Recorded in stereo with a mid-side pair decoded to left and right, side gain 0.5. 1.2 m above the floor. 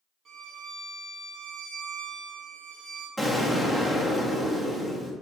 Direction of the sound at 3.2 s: 15° right.